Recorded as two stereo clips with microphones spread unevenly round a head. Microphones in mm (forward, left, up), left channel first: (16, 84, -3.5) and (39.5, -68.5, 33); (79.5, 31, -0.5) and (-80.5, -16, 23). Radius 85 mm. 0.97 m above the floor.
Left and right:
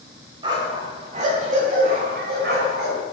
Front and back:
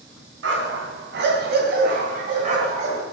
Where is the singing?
No singing in this recording.